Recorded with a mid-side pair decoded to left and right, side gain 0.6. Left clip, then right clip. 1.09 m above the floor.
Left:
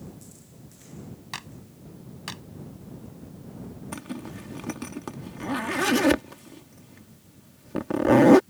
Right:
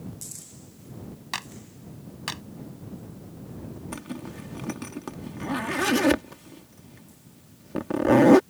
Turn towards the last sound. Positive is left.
turn(degrees=10)